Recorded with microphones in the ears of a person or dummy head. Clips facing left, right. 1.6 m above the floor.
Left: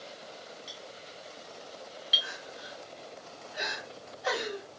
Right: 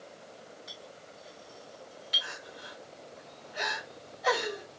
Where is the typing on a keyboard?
No typing on a keyboard in this recording.